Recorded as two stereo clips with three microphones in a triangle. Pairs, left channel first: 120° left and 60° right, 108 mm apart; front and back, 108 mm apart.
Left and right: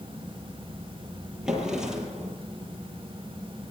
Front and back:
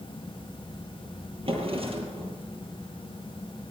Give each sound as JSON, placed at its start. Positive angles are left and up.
{"t": 1.4, "sound": "a drawer", "azimuth_deg": -145, "distance_m": 9.0}